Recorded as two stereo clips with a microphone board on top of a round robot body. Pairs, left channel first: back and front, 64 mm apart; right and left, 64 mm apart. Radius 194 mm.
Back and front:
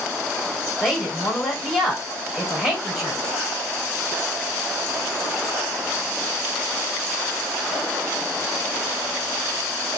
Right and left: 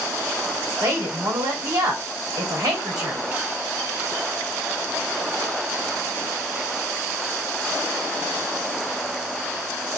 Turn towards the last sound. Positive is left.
turn(degrees=90)